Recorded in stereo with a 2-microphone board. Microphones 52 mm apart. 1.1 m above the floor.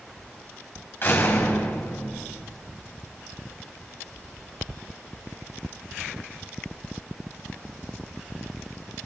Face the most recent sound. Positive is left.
turn(degrees=40)  # may be behind; listen again after turning